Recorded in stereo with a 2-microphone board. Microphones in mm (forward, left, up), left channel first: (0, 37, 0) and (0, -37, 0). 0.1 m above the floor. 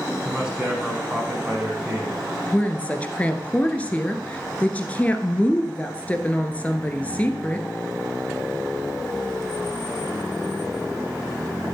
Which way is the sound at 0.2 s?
10° right (ahead or behind).